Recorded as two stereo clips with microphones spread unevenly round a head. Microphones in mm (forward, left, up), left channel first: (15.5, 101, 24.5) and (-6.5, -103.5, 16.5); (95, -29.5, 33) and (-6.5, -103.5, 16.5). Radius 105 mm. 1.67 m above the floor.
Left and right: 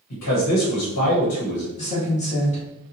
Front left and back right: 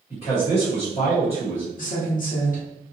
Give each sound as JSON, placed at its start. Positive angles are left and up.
{"t": 0.1, "sound": "a man speaking", "azimuth_deg": 100, "distance_m": 1.1}
{"t": 1.8, "sound": "a woman speaking", "azimuth_deg": 25, "distance_m": 1.3}